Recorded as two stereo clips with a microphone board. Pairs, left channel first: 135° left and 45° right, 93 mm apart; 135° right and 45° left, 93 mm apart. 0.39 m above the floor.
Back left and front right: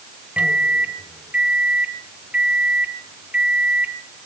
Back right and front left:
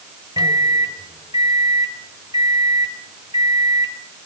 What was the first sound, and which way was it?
A microwave, 25° left.